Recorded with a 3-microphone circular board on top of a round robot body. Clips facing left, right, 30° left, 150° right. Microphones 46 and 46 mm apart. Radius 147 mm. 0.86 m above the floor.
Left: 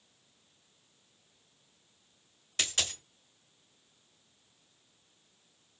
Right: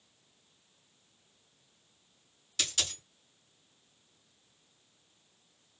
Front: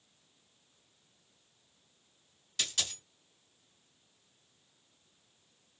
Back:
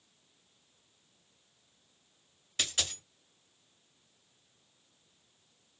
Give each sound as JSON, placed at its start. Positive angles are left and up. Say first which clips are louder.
{"t": 2.6, "sound": "a dropped coin", "louder": "left 2 dB, back 2 dB", "azimuth_deg": 140, "distance_m": 1.3}